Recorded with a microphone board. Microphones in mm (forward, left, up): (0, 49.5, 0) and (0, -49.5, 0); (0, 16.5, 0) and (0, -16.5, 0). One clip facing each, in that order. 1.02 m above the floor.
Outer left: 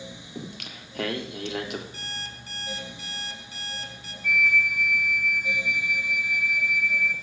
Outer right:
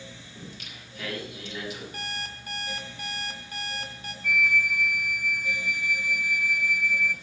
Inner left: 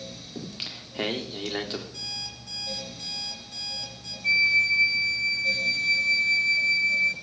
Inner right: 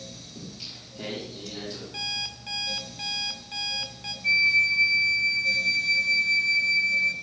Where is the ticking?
No ticking in this recording.